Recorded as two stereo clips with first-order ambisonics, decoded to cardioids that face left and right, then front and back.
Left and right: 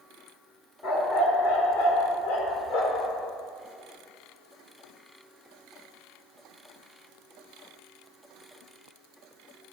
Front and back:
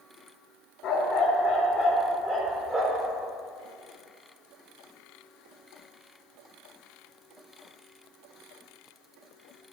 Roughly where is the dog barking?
Ahead left.